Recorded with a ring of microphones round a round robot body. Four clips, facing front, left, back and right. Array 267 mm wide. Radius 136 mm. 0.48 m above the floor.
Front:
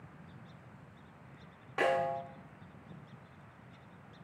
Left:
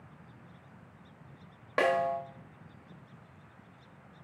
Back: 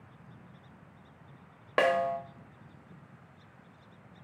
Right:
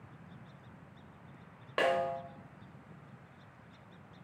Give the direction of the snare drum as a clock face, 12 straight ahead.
6 o'clock.